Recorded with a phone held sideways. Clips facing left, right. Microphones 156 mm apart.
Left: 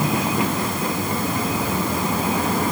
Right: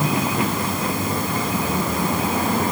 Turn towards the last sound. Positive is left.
No sound to turn to.